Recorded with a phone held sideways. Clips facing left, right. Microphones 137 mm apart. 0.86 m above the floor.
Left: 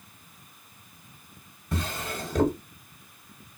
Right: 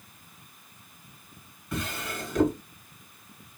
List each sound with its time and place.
1.7 s a drawer: 30° left (ahead or behind), 1.1 m